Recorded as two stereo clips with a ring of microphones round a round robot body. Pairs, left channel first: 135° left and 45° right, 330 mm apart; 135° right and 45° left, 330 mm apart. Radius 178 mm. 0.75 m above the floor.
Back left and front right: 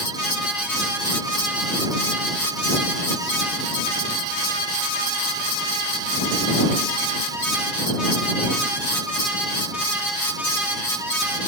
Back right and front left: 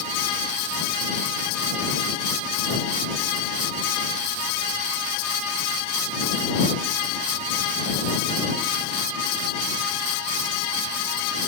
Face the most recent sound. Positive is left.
No sound to turn to.